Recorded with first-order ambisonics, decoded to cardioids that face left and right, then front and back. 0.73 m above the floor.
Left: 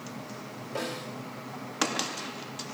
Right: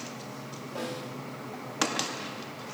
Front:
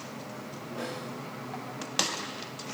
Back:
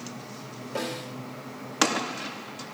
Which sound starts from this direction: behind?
A snare drum, at 0.8 s.